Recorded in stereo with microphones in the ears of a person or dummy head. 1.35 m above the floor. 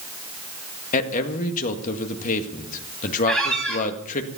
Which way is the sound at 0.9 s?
40° left (ahead or behind).